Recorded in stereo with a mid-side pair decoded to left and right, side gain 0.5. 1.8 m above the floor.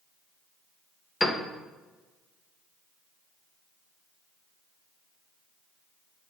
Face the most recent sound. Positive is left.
turn(degrees=20)